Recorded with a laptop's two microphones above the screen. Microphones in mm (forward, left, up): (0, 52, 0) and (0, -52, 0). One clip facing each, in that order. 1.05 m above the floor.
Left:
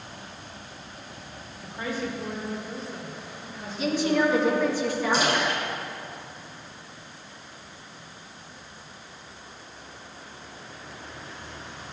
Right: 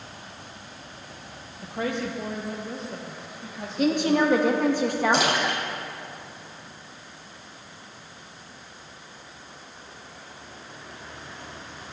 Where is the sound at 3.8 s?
55° right (ahead or behind), 1.2 m.